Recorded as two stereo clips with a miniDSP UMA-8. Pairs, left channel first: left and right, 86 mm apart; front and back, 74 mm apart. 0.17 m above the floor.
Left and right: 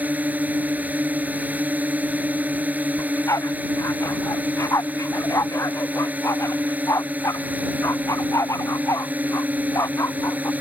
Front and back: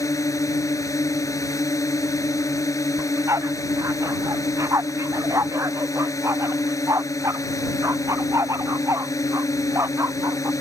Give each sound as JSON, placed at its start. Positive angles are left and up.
{"t": 0.0, "sound": "a drone", "azimuth_deg": -25}
{"t": 3.0, "sound": "a dog barking", "azimuth_deg": 140}